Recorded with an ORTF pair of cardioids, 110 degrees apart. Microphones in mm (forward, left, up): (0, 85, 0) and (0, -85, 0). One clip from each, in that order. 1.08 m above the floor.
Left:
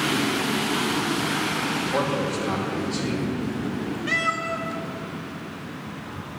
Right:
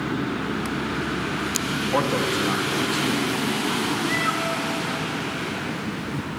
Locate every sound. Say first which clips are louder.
1.9 s a man speaking: right 6 dB; 40° right, 1.2 m
4.1 s a cat meowing: left 4 dB; 10° right, 0.7 m